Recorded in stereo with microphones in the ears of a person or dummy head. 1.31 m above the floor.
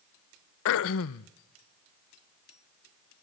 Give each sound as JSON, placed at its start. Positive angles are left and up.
{"t": 0.7, "sound": "throat clearing", "side_deg": 65, "distance_m": 0.7}